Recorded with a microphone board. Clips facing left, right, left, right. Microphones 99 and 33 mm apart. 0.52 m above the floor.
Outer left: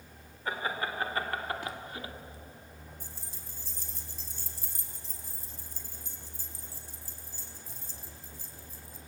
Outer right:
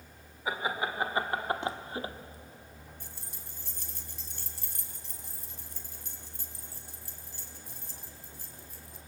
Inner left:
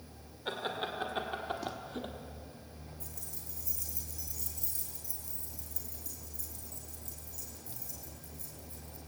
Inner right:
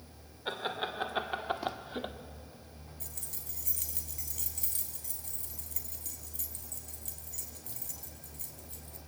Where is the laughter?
10° right (ahead or behind), 2 m; by 2.1 s 30° right (ahead or behind), 1.6 m.